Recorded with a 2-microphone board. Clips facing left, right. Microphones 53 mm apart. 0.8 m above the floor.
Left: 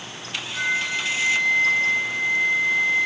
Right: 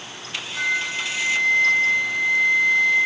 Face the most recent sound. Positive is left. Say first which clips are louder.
# even
turn(degrees=-65)  # may be behind; listen again after turning